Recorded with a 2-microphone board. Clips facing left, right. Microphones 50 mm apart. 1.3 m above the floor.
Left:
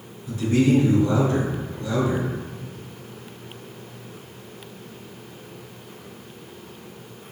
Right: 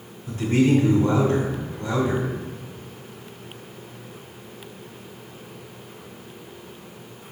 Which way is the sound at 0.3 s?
40° right (ahead or behind).